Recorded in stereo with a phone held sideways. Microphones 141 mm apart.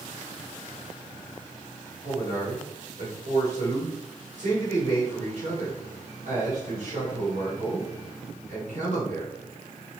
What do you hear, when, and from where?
2.0 s a man speaking: 60° right (ahead or behind), 4.5 m